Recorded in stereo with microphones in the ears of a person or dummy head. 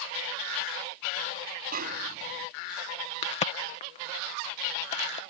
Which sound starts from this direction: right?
A snare drum, at 1.7 s.